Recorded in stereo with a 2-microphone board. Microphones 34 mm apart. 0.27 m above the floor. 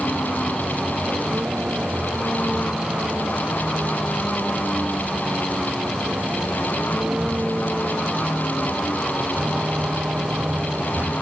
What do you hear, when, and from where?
0.0 s a vehicle: 40° right (ahead or behind)